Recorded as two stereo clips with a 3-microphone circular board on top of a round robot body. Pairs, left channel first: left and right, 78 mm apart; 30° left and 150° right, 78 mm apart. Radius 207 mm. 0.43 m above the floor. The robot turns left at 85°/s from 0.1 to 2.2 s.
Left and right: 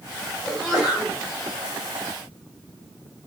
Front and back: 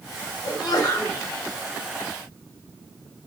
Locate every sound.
0.4 s a sneeze: 20° left, 1.6 m; by 1.2 s 45° right, 1.6 m